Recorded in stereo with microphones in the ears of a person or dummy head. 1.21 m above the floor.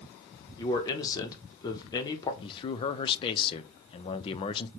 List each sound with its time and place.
0.6 s a man speaking: 20° left (ahead or behind), 0.7 m
2.4 s a man speaking: 25° left (ahead or behind), 0.5 m